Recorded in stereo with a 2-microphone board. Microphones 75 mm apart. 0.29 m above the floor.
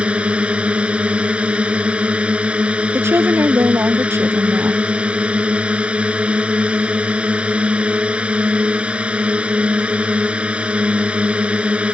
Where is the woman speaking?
35° right (ahead or behind).